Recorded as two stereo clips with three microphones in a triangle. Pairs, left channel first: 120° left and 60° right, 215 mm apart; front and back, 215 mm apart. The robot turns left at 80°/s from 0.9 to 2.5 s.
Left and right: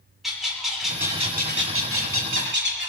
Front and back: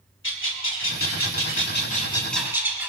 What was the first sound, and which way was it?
A bird, 30° left.